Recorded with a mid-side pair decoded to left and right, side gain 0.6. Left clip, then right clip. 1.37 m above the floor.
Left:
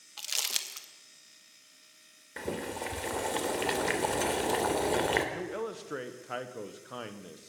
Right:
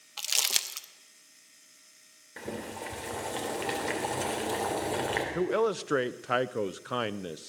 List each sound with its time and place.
0.2 s crumpling: 25° right, 1.1 m
2.4 s boiling: 20° left, 2.5 m
5.3 s a man speaking: 50° right, 0.6 m